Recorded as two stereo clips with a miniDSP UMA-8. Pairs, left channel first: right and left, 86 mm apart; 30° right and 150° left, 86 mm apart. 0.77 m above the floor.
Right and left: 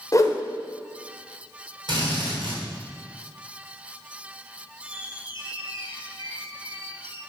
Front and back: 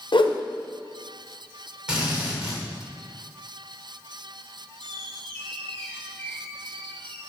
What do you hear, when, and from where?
0.1 s a whoosh: 45° right, 0.8 m
1.9 s a drill: 70° left, 3 m
4.8 s a squeak: 105° right, 2 m